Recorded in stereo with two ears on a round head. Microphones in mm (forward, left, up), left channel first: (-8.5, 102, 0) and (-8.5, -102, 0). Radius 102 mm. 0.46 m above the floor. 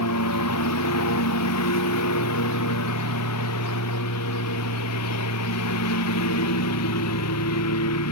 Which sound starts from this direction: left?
A lawn mower, at 0.0 s.